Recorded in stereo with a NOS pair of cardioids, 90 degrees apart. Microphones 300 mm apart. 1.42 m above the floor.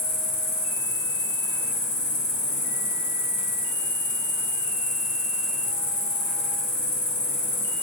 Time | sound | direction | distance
0.0 | an insect | 45° left | 1.7 m